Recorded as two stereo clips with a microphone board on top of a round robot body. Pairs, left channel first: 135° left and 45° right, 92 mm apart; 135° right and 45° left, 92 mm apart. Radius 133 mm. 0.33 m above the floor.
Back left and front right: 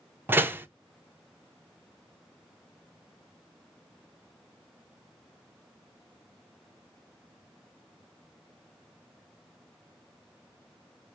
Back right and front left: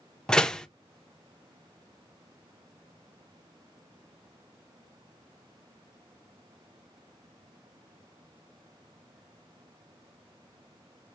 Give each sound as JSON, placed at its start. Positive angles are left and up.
{"t": 0.3, "sound": "a door slam", "azimuth_deg": -65, "distance_m": 0.8}